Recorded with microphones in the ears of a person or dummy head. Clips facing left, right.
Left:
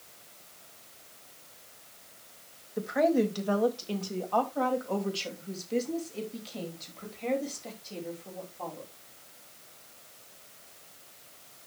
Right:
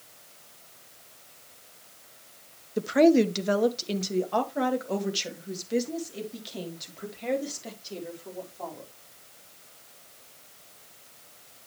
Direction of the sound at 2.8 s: 45° right (ahead or behind).